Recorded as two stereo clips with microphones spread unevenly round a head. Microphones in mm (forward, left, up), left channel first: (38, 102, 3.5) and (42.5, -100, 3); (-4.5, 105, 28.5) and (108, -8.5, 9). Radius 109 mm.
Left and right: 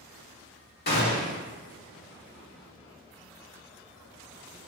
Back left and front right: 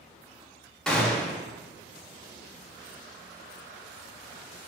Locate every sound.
0.9 s a gunshot: 50° left, 2.5 m